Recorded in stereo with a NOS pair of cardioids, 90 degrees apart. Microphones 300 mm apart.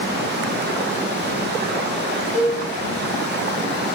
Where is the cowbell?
40° right, 3 m.